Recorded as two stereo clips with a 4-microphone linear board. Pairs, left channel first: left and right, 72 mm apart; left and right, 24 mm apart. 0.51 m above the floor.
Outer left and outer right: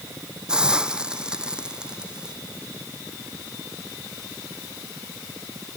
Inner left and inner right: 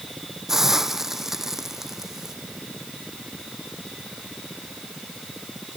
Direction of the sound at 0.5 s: 15° right (ahead or behind).